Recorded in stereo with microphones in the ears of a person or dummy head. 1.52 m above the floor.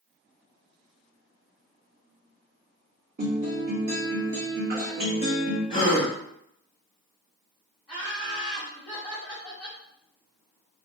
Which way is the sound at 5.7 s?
25° left (ahead or behind).